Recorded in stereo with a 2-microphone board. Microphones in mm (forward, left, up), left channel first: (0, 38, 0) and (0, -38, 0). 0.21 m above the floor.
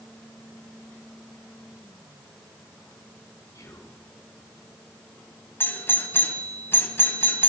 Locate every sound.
3.5 s whispering: 45° left (ahead or behind), 2.5 m
5.6 s a doorbell: 30° left (ahead or behind), 1.9 m